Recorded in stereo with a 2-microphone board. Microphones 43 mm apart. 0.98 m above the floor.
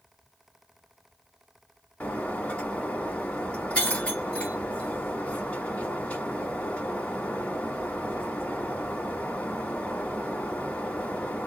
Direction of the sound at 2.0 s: 30° left (ahead or behind).